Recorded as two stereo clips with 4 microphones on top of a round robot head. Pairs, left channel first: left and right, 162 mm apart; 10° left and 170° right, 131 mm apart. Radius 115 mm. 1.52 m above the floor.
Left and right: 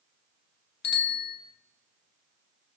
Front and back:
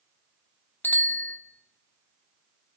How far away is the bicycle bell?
About 3 m.